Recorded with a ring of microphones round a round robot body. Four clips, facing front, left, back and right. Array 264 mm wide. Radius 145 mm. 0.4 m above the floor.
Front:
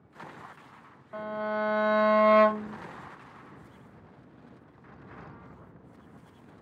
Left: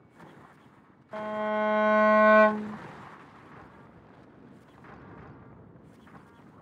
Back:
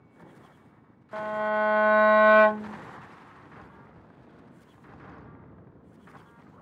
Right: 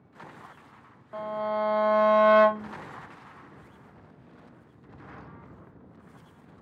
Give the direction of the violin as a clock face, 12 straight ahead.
7 o'clock.